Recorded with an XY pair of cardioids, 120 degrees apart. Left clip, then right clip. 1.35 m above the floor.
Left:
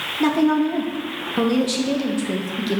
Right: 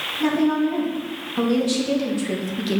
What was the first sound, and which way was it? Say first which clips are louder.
A woman speaking: left 3 dB; 40° left.